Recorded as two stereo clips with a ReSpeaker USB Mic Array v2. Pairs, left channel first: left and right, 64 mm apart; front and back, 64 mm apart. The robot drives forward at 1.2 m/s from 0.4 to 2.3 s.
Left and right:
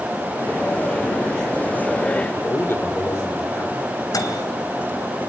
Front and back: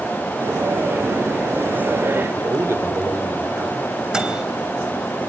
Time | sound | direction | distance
2.4 | a man speaking | 140° left | 3 m
4.1 | a microwave | 100° left | 3.5 m